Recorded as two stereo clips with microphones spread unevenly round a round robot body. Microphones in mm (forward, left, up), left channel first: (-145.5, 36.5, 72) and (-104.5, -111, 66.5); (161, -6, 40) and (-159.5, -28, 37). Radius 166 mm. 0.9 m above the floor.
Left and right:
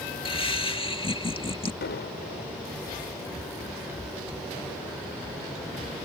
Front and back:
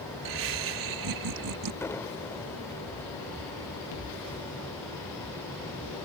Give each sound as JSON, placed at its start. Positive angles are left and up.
{"t": 0.2, "sound": "laughter", "azimuth_deg": 160}
{"t": 1.8, "sound": "an explosion", "azimuth_deg": 85}